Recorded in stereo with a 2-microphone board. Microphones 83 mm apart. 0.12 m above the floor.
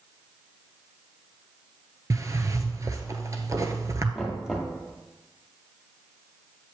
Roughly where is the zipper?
Right.